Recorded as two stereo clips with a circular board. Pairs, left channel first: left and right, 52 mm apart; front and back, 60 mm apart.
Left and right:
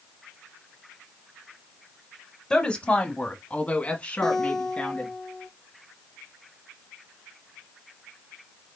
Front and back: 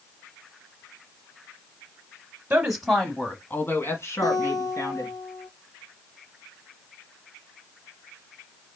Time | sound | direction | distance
2.5 | a woman speaking | 135° left | 1.0 m
4.2 | a guitar | 5° left | 1.5 m